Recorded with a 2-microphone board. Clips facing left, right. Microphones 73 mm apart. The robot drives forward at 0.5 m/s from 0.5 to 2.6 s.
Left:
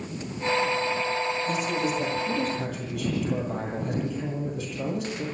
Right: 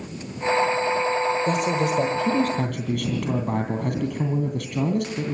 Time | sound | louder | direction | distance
1.5 | a man speaking | right 4 dB | 65° right (ahead or behind) | 2.5 m